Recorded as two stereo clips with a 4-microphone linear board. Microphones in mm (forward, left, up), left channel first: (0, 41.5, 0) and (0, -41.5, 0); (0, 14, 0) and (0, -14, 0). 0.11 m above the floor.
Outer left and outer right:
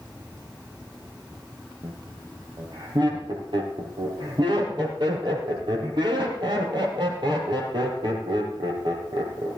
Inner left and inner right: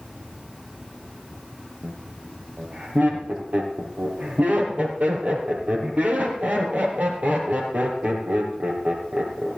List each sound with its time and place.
1.8 s laughter: 65° right (ahead or behind), 3.5 m